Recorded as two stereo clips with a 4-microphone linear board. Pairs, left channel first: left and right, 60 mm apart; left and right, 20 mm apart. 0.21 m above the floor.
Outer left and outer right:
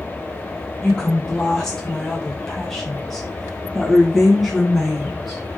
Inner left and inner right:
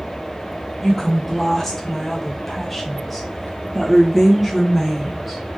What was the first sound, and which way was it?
A woman speaking, 15° left (ahead or behind).